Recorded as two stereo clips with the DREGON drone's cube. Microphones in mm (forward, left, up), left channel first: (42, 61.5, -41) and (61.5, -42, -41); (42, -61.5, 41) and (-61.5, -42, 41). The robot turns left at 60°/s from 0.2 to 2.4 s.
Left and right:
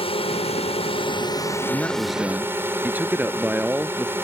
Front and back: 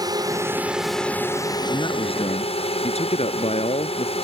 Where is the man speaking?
35° left; by 4.1 s 5° right.